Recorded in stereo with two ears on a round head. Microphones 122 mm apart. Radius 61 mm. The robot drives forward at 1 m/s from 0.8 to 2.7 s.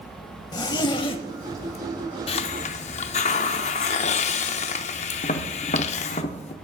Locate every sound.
0.5 s a zipper: 30° left (ahead or behind), 0.8 m; by 1.8 s 25° left (ahead or behind), 0.9 m
2.3 s a hiss: 40° left (ahead or behind), 0.6 m; by 6.2 s 50° left (ahead or behind), 0.5 m
5.2 s tapping: 50° left (ahead or behind), 0.7 m